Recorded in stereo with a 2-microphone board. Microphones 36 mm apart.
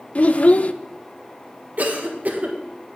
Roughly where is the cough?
Right.